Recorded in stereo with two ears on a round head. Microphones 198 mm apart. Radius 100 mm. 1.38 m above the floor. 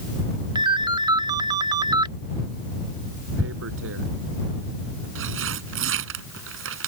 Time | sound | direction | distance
0.6 | a ringtone | 20° right (ahead or behind) | ?
3.4 | tearing paper | 65° right (ahead or behind) | ?